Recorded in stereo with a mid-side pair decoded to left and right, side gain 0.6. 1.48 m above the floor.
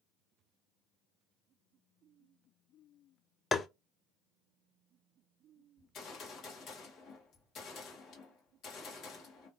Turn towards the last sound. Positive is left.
turn(degrees=50)